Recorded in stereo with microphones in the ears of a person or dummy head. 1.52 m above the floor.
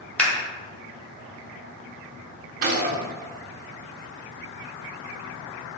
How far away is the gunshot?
About 0.7 m.